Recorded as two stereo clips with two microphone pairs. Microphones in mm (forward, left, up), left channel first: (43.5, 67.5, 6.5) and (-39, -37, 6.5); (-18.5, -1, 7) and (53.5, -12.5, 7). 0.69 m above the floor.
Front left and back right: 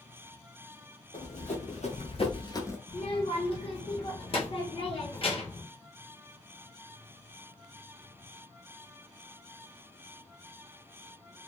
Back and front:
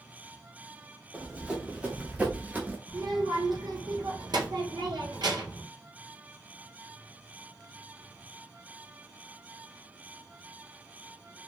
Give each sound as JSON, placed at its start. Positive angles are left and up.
{"t": 1.1, "sound": "running footsteps", "azimuth_deg": 65, "distance_m": 1.6}
{"t": 2.9, "sound": "a child speaking", "azimuth_deg": 10, "distance_m": 1.2}